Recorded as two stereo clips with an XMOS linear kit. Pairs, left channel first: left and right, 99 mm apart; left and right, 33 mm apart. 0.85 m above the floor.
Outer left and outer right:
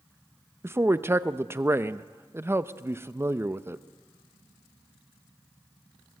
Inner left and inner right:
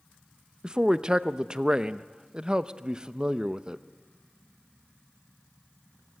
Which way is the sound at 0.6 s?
25° right (ahead or behind).